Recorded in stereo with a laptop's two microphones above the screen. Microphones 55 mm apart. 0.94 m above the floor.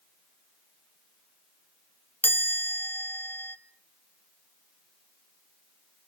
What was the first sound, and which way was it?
A chime, 45° left (ahead or behind).